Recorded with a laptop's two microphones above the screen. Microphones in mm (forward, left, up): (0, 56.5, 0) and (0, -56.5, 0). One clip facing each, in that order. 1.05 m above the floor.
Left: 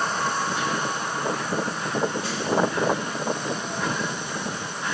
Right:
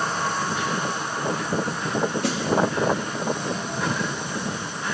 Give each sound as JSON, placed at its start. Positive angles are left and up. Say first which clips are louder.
{"t": 2.2, "sound": "a snare drum", "louder": "right 4 dB", "side_deg": -65, "distance_m": 1.4}